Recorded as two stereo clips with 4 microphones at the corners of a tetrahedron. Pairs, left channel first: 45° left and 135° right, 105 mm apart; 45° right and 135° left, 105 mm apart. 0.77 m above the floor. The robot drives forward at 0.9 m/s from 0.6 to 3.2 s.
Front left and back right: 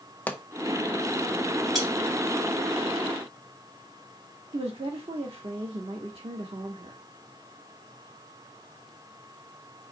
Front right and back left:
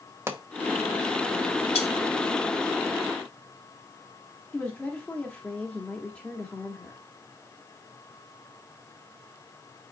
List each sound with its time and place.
0.3 s a pop: 105° left, 0.9 m
1.8 s cutlery clinking: 45° right, 2.5 m
4.5 s a woman speaking: 125° right, 1.2 m